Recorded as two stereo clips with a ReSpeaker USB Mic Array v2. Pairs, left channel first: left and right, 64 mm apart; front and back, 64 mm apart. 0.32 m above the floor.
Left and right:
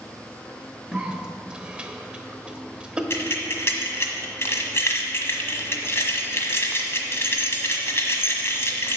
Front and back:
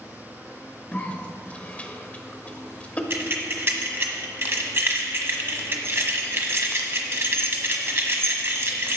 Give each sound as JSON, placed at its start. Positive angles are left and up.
{"t": 0.9, "sound": "a cough", "azimuth_deg": -35, "distance_m": 1.0}
{"t": 3.1, "sound": "keys jangling", "azimuth_deg": 135, "distance_m": 1.3}